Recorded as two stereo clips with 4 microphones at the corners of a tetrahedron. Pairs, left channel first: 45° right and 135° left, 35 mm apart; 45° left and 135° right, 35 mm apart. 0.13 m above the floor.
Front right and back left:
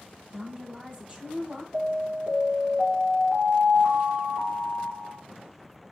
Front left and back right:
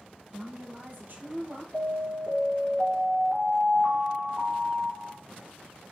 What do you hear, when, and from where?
0.3 s a woman speaking: 170° right, 3.5 m
1.7 s an alarm: 170° left, 3.5 m